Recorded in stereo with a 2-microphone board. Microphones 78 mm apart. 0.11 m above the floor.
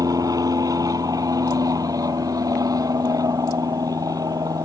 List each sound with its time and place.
0.0 s an aircraft: 50° right (ahead or behind)